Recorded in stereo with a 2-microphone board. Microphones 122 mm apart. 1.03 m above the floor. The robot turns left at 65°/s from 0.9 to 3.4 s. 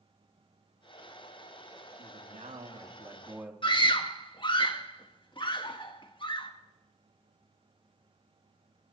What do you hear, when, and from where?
2.0 s a man speaking: 75° right, 2.5 m; by 3.5 s 165° right, 2.5 m
3.6 s a scream: 40° left (ahead or behind), 1.7 m